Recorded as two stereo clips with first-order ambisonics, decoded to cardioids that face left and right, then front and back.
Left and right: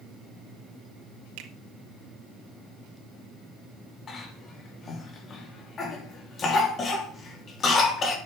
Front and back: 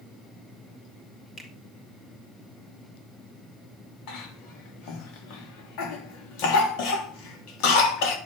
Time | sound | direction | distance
1.4 | a finger snap | 80° right | 2 m
4.1 | a cough | 25° left | 3.5 m